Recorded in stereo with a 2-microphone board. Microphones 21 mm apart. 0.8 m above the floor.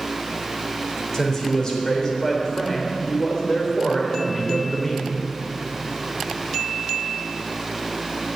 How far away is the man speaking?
About 3.5 m.